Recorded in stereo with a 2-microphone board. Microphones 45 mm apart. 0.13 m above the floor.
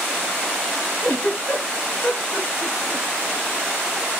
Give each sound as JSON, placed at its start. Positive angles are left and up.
{"t": 1.0, "sound": "a giggle", "side_deg": 45, "distance_m": 2.0}